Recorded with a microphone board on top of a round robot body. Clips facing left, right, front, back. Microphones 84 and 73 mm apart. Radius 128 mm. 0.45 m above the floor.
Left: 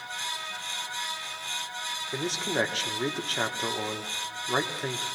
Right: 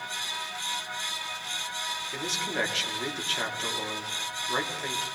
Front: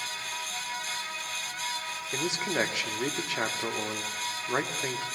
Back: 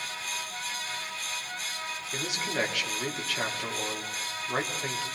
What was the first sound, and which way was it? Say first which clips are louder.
A man speaking: left 4 dB, front 3 dB; 55° left.